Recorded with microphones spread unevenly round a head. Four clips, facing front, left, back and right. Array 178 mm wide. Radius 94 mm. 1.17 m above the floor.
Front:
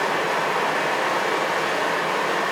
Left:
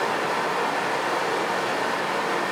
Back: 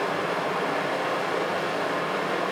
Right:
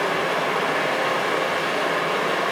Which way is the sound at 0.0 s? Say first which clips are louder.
Right 2 dB, front 4 dB; 60° right.